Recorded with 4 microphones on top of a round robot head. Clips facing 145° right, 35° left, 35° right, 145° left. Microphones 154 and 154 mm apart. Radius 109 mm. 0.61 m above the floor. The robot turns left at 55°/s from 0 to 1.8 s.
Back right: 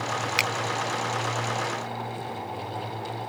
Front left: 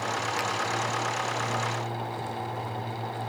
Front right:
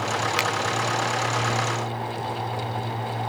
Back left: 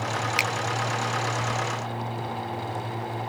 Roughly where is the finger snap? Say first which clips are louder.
Back right 1 dB, front right 3 dB; behind right.